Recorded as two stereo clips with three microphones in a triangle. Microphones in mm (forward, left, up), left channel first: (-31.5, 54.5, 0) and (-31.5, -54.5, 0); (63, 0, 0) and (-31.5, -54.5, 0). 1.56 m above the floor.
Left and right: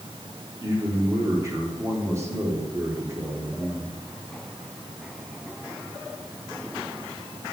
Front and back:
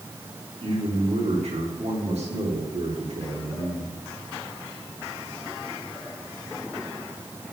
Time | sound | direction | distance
0.6 | a man speaking | 155° right | 4 m